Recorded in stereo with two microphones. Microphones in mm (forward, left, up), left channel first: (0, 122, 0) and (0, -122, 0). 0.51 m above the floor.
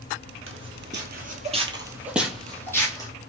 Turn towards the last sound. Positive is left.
turn(degrees=15)  # may be behind; listen again after turning